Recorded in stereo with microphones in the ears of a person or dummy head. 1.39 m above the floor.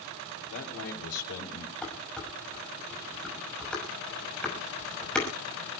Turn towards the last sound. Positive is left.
turn(degrees=5)  # may be behind; listen again after turning